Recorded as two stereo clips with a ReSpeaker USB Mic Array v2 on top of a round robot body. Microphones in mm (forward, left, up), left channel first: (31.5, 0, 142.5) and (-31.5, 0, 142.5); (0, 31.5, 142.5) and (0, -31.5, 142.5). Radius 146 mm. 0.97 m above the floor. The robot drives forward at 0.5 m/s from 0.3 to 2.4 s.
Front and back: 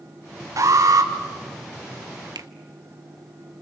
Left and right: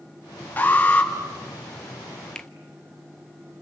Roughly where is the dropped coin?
I don't hear a dropped coin.